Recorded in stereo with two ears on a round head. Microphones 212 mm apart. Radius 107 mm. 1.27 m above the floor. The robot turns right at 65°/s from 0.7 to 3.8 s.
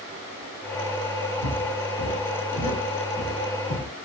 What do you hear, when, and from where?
1.4 s footsteps: 30° right (ahead or behind), 1.4 m; by 3.9 s 5° right (ahead or behind), 1.6 m